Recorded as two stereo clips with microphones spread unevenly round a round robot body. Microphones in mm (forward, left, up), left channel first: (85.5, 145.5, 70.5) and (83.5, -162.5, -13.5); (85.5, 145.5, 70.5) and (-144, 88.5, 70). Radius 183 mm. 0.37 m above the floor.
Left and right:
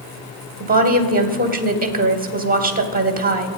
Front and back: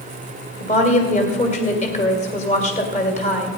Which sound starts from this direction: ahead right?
A woman speaking, at 0.6 s.